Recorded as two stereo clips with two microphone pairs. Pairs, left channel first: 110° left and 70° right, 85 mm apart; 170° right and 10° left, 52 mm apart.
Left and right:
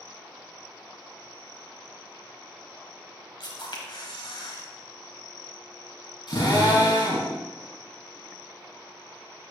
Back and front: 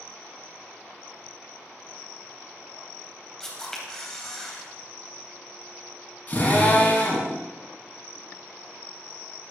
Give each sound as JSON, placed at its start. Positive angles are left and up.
{"t": 3.4, "sound": "a camera shutter", "azimuth_deg": 110, "distance_m": 2.0}
{"t": 6.3, "sound": "a drill", "azimuth_deg": 135, "distance_m": 5.5}